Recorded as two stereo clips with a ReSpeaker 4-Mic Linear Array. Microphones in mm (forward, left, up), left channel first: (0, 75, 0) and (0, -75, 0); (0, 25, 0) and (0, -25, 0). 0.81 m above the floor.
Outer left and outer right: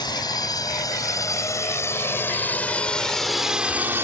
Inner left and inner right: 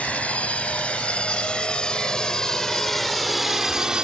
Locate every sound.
0.0 s a drone: 30° left (ahead or behind); by 4.0 s 15° right (ahead or behind)